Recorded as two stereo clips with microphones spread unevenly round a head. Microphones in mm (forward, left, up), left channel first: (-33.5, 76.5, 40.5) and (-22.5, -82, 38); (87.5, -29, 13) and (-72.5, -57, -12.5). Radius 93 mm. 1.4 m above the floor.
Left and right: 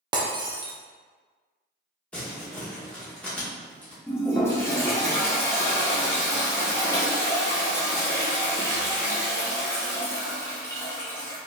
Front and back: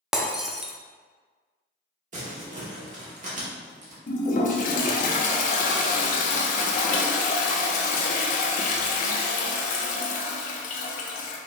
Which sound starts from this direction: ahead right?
Breaking glass, at 0.1 s.